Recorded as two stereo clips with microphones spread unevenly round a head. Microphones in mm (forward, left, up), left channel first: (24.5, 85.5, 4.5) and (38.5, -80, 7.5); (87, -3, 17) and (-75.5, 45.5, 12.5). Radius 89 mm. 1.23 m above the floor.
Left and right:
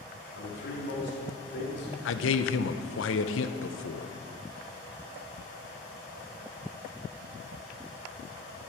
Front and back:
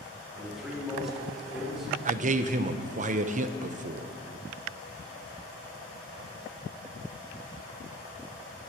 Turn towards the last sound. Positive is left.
turn(degrees=115)